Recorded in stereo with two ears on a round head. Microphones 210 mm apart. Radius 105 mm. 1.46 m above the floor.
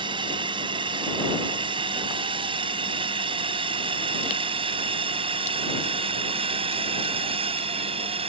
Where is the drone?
20° right (ahead or behind); by 8.3 s 25° right (ahead or behind).